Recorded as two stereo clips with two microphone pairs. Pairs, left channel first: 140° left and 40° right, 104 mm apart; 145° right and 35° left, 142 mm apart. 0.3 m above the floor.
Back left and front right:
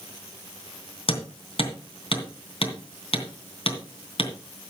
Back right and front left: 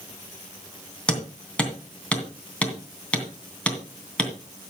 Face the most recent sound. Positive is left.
turn(degrees=135)